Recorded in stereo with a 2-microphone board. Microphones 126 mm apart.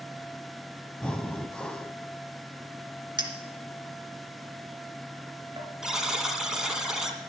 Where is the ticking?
I don't hear ticking.